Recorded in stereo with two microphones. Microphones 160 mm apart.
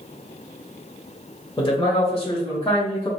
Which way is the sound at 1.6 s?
30° left (ahead or behind).